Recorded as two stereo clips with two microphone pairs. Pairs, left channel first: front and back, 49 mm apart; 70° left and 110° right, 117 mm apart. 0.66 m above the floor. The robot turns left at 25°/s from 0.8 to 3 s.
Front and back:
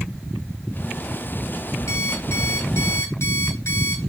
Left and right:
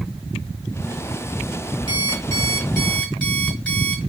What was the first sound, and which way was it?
An alarm clock, 20° left.